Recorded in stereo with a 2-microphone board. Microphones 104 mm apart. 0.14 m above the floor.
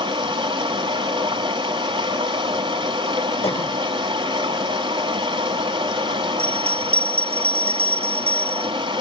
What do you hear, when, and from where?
0.0 s running water: 45° right (ahead or behind), 2.5 m
3.4 s a cough: 65° left (ahead or behind), 4.5 m
6.4 s a bell: 75° right (ahead or behind), 1.0 m